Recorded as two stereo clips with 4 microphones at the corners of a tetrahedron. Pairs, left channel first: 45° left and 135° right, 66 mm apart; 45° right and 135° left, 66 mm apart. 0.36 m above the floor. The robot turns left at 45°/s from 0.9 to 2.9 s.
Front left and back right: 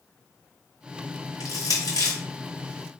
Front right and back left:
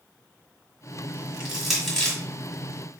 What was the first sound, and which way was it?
Crushing, 60° left.